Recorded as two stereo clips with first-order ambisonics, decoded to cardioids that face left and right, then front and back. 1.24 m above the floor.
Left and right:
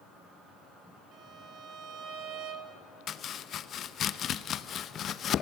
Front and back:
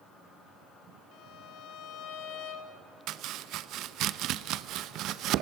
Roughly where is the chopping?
Behind left.